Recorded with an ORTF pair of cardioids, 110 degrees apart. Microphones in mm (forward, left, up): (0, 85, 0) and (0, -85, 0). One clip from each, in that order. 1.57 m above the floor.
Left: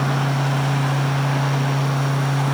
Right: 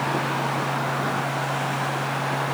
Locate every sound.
0.0 s a fan: 60° left